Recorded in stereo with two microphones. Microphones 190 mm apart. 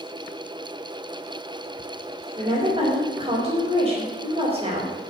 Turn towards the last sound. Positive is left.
turn(degrees=-25)  # may be behind; listen again after turning